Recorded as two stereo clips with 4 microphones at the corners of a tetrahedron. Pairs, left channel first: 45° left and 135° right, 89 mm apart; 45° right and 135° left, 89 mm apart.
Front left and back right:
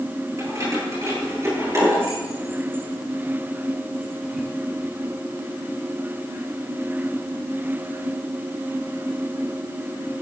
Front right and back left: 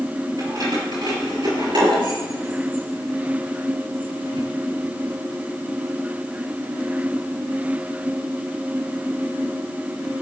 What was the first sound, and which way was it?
Keys jangling, 170° left.